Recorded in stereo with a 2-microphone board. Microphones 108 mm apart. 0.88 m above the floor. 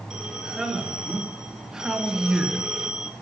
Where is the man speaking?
5° right (ahead or behind), 3 m.